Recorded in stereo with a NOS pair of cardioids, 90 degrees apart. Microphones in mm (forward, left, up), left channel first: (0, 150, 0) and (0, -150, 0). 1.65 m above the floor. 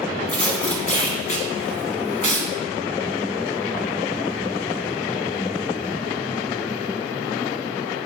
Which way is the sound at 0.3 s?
25° left.